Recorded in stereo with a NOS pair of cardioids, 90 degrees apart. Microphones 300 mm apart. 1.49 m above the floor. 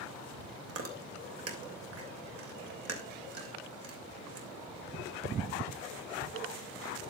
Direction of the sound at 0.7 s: 50° right.